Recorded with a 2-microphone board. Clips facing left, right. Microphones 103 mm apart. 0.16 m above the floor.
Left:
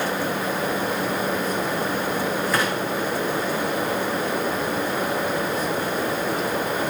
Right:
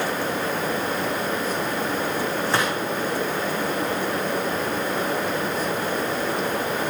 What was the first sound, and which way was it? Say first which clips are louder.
A gunshot: right 1 dB; 30° right (ahead or behind).